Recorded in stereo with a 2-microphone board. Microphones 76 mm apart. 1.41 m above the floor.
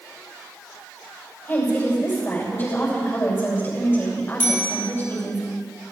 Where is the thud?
No thud in this recording.